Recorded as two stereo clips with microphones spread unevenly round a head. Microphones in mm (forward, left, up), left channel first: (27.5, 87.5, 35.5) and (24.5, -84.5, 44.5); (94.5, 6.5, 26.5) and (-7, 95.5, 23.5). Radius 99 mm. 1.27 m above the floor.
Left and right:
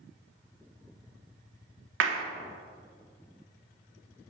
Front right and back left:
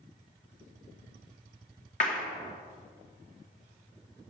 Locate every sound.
2.0 s a clap: 95° right, 0.9 m